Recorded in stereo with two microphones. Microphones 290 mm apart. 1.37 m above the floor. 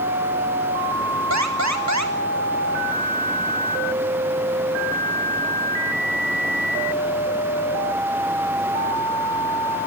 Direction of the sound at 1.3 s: 70° right (ahead or behind).